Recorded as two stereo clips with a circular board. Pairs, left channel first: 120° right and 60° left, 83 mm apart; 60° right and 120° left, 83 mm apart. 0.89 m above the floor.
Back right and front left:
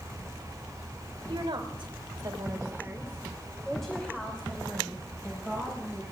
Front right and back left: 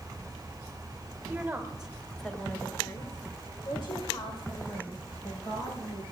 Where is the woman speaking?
50° left, 3 m; by 6.0 s 60° right, 6 m.